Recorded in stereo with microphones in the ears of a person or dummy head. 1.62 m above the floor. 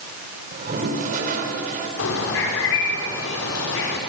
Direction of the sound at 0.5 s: 45° right (ahead or behind).